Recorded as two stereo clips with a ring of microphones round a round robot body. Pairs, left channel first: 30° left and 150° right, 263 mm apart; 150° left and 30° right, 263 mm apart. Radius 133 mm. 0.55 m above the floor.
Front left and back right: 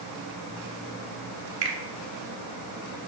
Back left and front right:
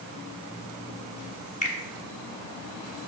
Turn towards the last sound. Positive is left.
turn(degrees=-150)